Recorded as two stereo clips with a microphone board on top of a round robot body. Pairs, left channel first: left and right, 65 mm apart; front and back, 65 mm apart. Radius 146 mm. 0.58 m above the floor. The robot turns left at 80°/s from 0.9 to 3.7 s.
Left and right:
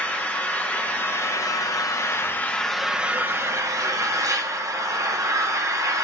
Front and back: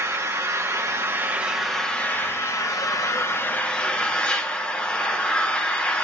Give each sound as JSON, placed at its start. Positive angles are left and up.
{"t": 0.0, "sound": "an engine running", "azimuth_deg": 150, "distance_m": 1.3}